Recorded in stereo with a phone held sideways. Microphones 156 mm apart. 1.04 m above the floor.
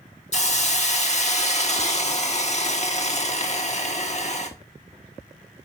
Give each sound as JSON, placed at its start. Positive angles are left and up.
{"t": 0.3, "sound": "a hiss", "side_deg": 45, "distance_m": 1.1}